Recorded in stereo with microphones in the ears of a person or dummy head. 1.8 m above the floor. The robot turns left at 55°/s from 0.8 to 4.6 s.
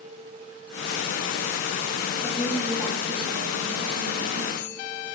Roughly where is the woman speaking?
Ahead.